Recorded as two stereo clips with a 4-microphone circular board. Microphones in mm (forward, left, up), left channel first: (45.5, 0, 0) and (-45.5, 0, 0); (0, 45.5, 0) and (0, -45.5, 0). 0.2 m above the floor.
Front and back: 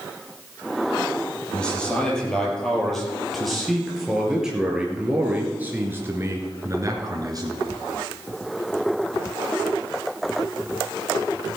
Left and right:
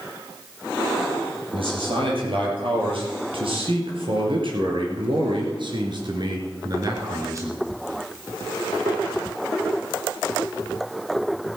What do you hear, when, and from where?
1.5 s a man speaking: 80° right, 5 m; by 7.6 s 140° right, 2.5 m